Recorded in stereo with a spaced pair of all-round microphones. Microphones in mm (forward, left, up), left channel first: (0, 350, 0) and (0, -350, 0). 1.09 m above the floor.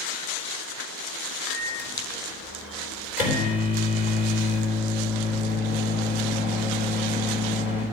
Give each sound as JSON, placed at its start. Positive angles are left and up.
{"t": 1.5, "sound": "a microwave", "side_deg": 75, "distance_m": 4.0}